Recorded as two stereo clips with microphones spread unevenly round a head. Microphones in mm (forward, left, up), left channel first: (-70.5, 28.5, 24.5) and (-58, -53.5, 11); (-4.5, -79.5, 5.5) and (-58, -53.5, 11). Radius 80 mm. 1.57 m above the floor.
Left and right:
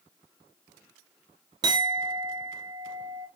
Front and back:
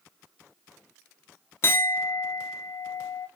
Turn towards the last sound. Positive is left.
turn(degrees=-50)